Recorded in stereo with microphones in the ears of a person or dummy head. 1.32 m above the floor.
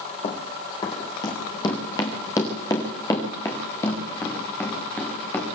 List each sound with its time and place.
0.2 s running footsteps: 35° left (ahead or behind), 4 m; by 5.5 s 10° left (ahead or behind), 8 m